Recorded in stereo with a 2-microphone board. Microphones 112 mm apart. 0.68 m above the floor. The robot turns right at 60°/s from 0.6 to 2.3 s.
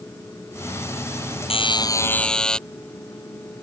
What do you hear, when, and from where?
1.5 s a buzzer: 125° left; by 2.6 s 175° left